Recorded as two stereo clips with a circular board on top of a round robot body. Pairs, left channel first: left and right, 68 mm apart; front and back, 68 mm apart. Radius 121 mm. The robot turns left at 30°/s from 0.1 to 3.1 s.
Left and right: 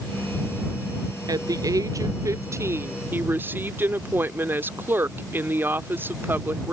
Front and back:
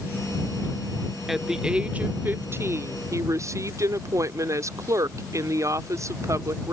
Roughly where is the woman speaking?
Right.